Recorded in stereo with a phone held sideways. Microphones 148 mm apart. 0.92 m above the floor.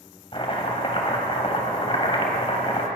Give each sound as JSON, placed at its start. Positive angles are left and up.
{"t": 0.3, "sound": "chopping", "side_deg": 40, "distance_m": 2.0}